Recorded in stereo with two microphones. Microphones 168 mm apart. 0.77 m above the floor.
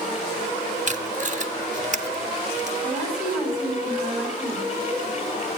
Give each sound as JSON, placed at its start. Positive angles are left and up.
{"t": 0.9, "sound": "tape being pulled", "side_deg": -45, "distance_m": 0.6}
{"t": 2.8, "sound": "a woman speaking", "side_deg": 0, "distance_m": 5.5}